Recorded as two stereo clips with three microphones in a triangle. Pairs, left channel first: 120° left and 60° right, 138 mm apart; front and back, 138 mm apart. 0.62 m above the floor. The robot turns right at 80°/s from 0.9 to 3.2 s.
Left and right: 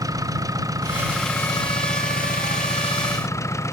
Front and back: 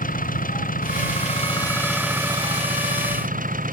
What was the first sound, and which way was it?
An engine running, 5° left.